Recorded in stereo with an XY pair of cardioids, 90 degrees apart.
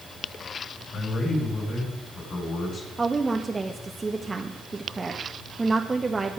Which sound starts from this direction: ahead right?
A woman speaking, at 3.0 s.